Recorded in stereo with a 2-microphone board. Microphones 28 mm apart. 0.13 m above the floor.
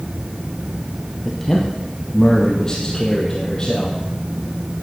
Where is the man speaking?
10° left (ahead or behind), 2.5 m; by 4.0 s 30° left (ahead or behind), 4 m.